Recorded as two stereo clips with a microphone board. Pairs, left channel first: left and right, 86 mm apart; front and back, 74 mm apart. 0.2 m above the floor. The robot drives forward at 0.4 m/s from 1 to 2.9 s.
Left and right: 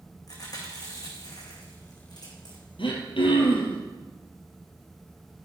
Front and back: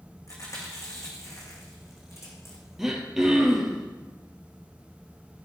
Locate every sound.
0.3 s chewing: 45° left, 4 m; by 2.6 s 50° left, 3.5 m
2.8 s throat clearing: 95° left, 2.5 m